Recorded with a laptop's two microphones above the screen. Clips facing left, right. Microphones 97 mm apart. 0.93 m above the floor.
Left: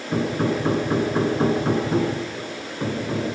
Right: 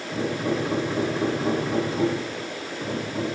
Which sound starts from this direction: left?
Hammering, at 0.1 s.